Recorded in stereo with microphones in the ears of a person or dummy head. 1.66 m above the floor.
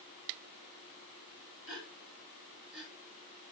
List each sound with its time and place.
1.7 s a gasp: centre (ahead or behind), 2.5 m